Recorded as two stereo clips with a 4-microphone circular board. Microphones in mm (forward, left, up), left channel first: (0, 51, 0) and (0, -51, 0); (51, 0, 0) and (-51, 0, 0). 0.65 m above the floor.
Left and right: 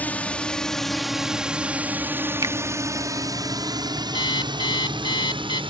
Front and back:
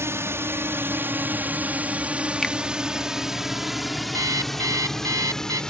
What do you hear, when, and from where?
0.0 s a drone: 150° left; by 5.7 s 85° right
2.4 s a finger snap: 85° right
4.1 s an alarm clock: 125° left